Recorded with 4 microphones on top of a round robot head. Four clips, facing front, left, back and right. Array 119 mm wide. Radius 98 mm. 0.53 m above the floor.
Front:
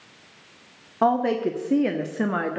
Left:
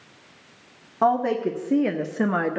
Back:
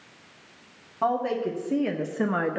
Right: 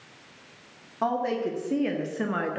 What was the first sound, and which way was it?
A woman speaking, 35° left.